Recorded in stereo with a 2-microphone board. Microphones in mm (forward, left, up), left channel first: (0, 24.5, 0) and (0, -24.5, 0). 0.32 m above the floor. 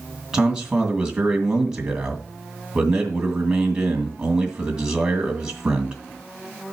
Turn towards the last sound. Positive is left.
turn(degrees=-15)  # may be behind; listen again after turning